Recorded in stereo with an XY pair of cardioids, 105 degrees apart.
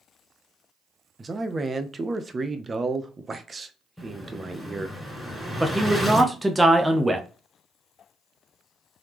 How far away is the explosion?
About 2.5 m.